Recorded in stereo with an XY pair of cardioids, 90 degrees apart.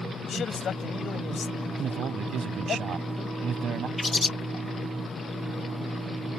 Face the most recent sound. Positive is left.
turn(degrees=25)